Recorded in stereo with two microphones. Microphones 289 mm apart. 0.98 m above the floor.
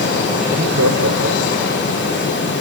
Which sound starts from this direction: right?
Laughter, at 0.5 s.